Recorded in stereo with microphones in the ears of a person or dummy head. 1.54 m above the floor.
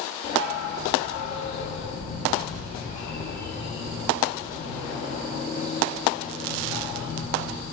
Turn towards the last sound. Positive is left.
turn(degrees=40)  # may be behind; listen again after turning